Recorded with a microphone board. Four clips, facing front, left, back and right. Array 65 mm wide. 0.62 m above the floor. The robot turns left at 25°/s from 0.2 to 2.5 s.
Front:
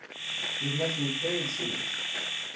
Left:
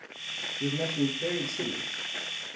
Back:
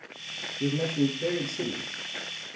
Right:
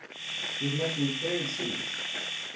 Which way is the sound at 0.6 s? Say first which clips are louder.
Left 1 dB, back 6 dB; 165° left.